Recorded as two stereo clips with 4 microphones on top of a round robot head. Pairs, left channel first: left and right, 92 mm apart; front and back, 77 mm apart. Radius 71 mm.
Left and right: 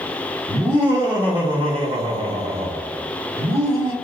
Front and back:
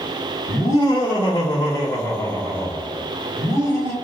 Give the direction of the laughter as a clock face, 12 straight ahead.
1 o'clock.